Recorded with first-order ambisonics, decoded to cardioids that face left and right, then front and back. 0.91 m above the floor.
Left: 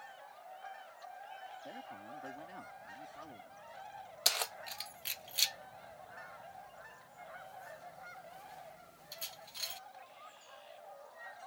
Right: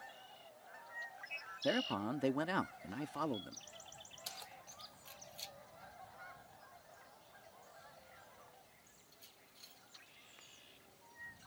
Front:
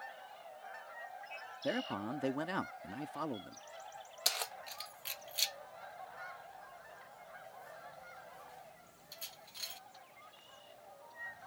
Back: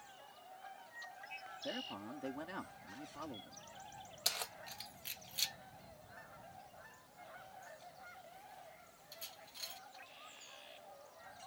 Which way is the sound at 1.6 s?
60° right.